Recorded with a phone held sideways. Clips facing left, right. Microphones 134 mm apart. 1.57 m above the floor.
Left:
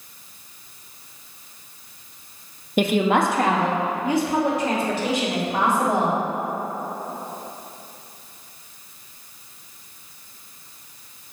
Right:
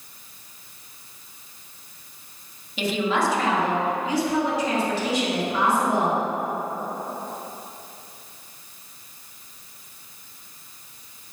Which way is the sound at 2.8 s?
50° left (ahead or behind).